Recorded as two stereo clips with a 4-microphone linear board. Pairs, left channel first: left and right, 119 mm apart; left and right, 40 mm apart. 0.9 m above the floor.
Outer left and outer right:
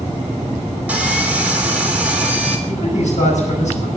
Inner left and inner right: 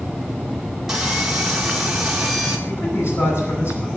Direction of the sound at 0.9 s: 10° right (ahead or behind).